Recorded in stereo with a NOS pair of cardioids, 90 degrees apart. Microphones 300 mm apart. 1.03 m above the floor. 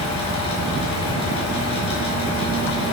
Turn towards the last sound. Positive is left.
turn(degrees=60)